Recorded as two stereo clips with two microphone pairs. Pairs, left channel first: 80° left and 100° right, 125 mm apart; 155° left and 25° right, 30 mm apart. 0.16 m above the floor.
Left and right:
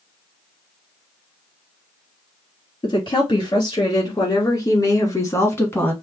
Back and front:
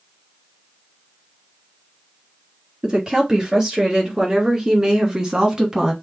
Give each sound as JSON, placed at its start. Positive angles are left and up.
{"t": 2.8, "sound": "a woman speaking", "azimuth_deg": 30, "distance_m": 3.0}